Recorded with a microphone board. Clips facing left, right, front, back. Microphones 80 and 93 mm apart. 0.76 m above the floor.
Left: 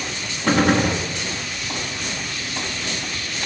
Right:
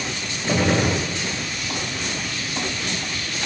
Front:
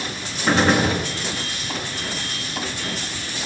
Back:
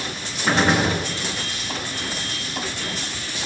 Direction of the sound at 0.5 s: 95° left.